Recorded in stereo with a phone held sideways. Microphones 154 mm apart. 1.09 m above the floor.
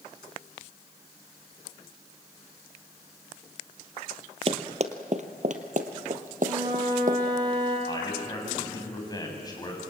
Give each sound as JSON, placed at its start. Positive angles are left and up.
{"t": 4.5, "sound": "running footsteps", "side_deg": -45, "distance_m": 1.7}
{"t": 6.4, "sound": "a flute", "side_deg": -25, "distance_m": 8.0}
{"t": 7.9, "sound": "a man speaking", "side_deg": 25, "distance_m": 7.5}